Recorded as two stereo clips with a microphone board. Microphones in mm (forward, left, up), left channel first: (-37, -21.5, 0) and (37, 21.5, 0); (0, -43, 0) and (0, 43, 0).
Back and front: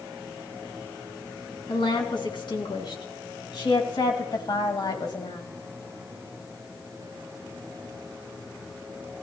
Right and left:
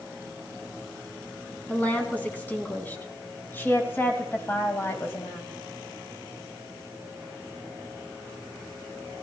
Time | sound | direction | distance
1.7 | a woman speaking | 160° right | 3.5 m